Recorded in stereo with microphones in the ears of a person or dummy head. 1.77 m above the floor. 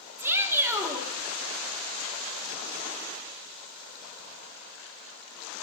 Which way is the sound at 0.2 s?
10° right (ahead or behind).